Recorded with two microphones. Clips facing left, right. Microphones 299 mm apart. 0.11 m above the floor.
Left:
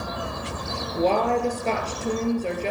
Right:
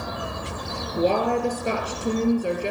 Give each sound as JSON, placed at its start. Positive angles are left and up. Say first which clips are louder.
{"t": 1.0, "sound": "a woman speaking", "louder": "even", "side_deg": -15, "distance_m": 2.0}